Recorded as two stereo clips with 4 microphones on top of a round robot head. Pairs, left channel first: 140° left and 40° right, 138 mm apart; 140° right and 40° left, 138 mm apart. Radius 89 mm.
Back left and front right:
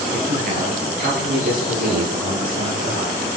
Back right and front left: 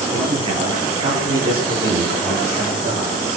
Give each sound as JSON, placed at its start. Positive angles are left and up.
{"t": 0.1, "sound": "a man speaking", "azimuth_deg": -10, "distance_m": 10.0}